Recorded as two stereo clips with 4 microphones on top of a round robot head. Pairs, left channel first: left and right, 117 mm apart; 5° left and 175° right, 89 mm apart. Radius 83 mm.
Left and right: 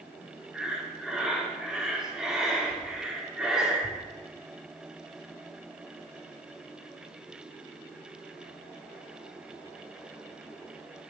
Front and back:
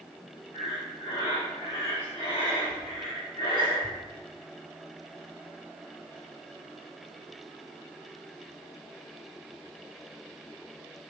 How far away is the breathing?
About 1.2 m.